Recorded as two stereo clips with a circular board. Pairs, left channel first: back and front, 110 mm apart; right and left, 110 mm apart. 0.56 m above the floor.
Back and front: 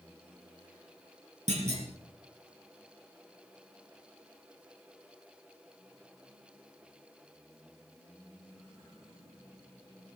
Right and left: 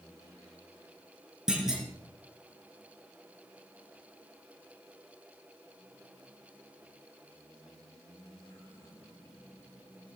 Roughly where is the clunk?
Ahead.